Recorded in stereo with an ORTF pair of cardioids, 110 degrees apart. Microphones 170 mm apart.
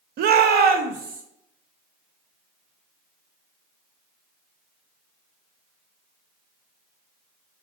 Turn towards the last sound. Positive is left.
turn(degrees=-55)